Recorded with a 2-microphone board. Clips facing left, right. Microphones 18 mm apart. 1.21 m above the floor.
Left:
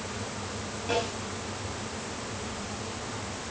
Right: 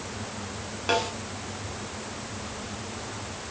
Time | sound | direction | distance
0.9 | a snare drum | 45° right (ahead or behind) | 8.5 m